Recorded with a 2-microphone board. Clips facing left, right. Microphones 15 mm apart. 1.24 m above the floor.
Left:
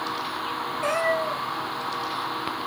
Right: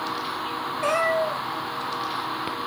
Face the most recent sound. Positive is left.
turn(degrees=-20)  # may be behind; listen again after turning